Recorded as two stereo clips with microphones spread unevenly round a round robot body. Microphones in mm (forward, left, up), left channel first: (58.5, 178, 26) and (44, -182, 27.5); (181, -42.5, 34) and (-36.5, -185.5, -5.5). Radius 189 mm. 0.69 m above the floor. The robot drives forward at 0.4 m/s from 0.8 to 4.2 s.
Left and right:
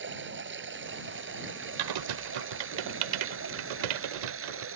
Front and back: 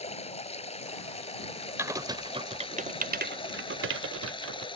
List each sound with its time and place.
0.0 s running water: 35° right; by 4.8 s 40° right
1.8 s typing on a keyboard: 65° right; by 4.7 s 110° right